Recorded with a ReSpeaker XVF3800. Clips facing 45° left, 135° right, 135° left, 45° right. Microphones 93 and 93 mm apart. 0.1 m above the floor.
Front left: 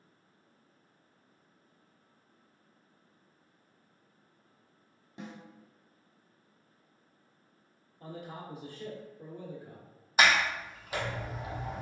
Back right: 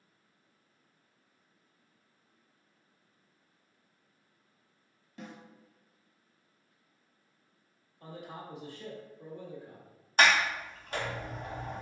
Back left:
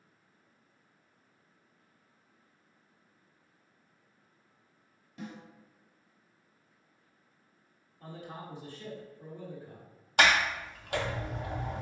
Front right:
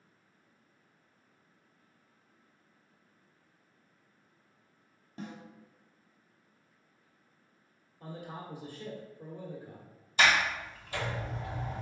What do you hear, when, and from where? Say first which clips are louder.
5.2 s a snare drum: front left 2 dB, even; 15° right, 1.0 m
8.0 s a man speaking: front left 1 dB, front right 1 dB; 15° left, 1.1 m
10.2 s a sliding door: even, back left 1 dB; 130° left, 0.6 m